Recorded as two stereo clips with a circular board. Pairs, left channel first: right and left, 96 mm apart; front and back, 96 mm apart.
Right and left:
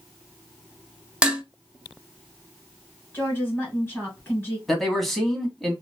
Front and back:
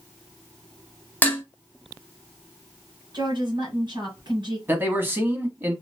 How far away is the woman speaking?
About 2.5 m.